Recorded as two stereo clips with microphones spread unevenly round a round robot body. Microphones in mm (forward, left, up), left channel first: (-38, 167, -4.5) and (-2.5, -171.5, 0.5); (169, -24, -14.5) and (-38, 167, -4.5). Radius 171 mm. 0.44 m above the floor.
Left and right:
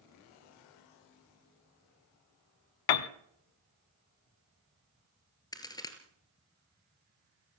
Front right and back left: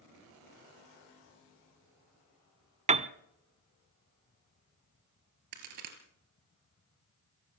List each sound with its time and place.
2.9 s a piano: 70° left, 0.9 m
5.5 s a crack: 175° left, 2.5 m